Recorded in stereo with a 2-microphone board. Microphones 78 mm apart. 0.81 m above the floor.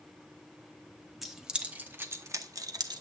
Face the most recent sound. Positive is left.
turn(degrees=-65)  # may be behind; listen again after turning